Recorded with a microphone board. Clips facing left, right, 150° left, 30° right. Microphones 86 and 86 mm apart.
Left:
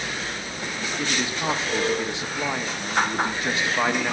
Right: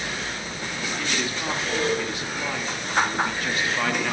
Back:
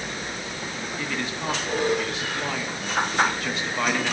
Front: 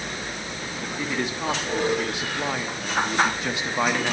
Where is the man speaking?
35° left, 1.1 m.